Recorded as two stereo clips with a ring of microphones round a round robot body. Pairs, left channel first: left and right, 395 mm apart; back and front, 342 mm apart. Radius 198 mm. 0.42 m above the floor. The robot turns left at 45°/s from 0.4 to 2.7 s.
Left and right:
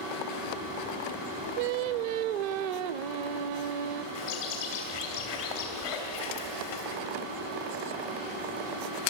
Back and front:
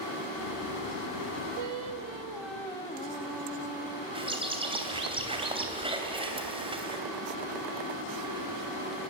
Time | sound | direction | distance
1.6 | singing | 50° right | 0.6 m
4.2 | a bird | 75° left | 3 m